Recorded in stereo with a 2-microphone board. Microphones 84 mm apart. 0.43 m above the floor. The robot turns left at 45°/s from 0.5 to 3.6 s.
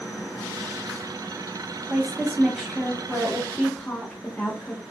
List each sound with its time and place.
1.9 s a woman speaking: 5° right (ahead or behind), 0.7 m; by 4.8 s 15° left (ahead or behind), 0.7 m